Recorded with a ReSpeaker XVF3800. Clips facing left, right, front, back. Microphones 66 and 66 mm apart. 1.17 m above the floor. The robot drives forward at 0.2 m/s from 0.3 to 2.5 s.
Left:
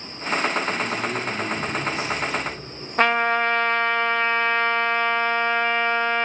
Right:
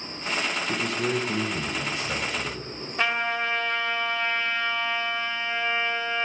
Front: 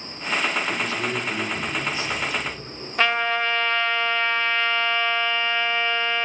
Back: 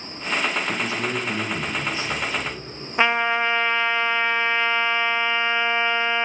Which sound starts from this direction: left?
A trumpet, at 3.0 s.